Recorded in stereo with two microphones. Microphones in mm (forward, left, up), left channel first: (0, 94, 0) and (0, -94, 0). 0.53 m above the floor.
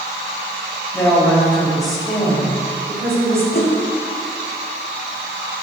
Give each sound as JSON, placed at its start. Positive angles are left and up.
{"t": 0.9, "sound": "a woman speaking", "side_deg": 10, "distance_m": 2.0}
{"t": 3.5, "sound": "a whoosh", "side_deg": 50, "distance_m": 0.9}